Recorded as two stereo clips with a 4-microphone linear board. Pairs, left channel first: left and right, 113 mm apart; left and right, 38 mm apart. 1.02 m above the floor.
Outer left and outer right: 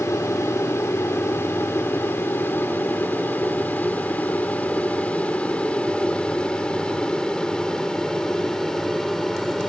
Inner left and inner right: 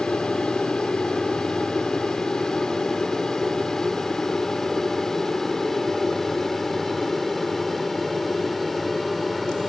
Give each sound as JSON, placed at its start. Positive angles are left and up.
{"t": 0.0, "sound": "an aircraft", "side_deg": 25}